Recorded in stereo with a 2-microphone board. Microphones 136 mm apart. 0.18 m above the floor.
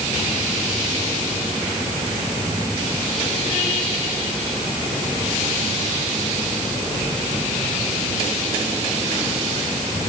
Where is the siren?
No siren in this recording.